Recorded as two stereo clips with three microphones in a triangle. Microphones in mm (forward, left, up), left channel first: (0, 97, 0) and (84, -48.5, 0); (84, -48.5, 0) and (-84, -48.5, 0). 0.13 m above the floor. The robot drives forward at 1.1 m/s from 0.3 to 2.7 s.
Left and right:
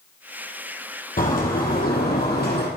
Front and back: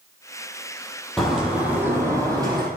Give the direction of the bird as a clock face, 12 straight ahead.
9 o'clock.